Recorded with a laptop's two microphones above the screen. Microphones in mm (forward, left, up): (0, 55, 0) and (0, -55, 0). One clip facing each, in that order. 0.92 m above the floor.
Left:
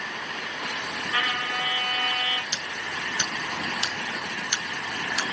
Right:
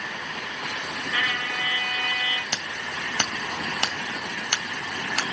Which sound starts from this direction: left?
A trumpet, at 1.1 s.